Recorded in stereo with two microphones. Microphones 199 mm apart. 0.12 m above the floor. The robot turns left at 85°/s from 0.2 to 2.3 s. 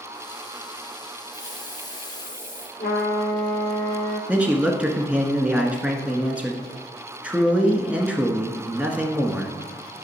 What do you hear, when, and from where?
1.3 s a hiss: 105° left, 3 m; by 2.7 s 20° left, 3 m
2.8 s a trumpet: 50° left (ahead or behind), 3 m
4.3 s a man speaking: 5° right (ahead or behind), 1.1 m